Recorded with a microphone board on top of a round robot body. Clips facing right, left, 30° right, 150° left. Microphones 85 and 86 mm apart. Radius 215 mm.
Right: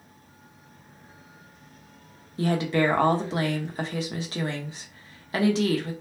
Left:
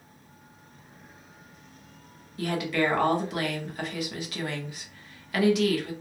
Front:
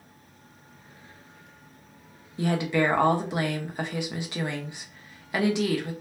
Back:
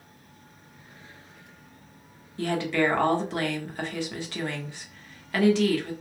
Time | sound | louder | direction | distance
2.4 | a woman speaking | right 3 dB, front 1 dB | 90° right | 1.4 m